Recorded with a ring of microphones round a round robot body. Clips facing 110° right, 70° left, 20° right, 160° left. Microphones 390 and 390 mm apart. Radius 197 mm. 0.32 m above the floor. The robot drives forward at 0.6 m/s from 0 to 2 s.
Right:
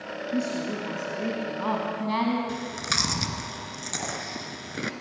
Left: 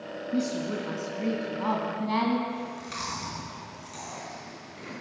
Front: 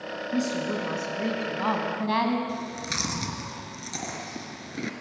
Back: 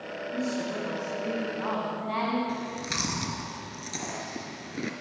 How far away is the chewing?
About 1.8 m.